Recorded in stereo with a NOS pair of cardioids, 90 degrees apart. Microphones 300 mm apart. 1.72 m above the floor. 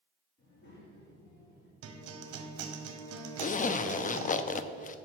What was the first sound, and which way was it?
A child speaking, 35° left.